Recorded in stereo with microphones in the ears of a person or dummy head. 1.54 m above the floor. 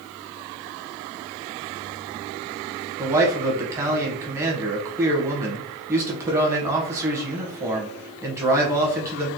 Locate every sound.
3.0 s a man speaking: 15° right (ahead or behind), 0.8 m